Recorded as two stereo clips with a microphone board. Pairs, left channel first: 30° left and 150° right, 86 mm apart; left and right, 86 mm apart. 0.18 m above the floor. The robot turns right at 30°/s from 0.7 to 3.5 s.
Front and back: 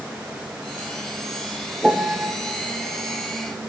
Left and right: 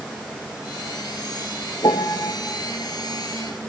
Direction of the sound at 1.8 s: 125° left.